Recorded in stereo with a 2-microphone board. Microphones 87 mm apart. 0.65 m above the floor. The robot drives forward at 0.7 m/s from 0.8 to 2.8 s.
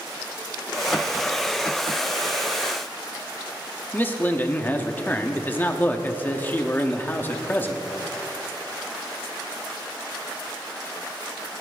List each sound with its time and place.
3.9 s a man speaking: 25° left (ahead or behind), 1.3 m